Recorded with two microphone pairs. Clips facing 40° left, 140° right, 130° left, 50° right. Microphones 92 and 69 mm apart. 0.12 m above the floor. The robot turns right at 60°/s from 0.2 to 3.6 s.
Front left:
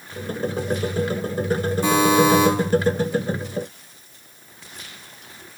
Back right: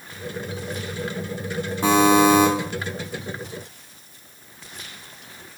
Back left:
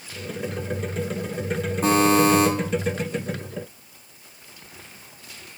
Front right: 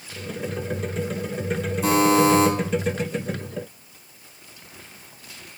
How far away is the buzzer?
About 2 m.